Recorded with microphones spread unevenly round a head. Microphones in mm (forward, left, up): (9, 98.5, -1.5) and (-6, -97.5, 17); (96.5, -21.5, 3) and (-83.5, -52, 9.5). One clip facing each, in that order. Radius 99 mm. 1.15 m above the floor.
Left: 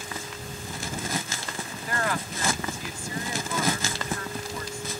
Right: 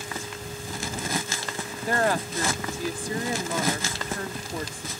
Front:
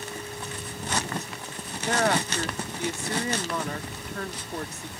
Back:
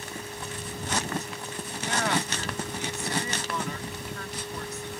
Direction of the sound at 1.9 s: 35° right.